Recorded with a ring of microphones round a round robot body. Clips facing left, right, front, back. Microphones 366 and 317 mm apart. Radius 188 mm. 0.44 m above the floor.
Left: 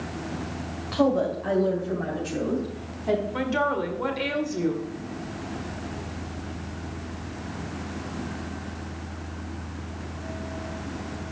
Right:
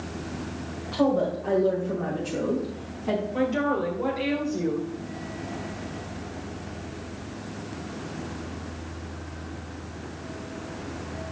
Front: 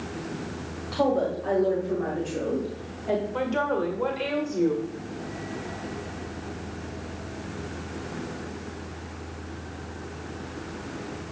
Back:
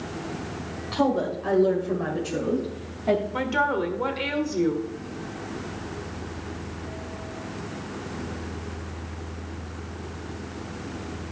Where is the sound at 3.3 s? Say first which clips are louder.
Right 2 dB, even; 135° left, 1.9 m.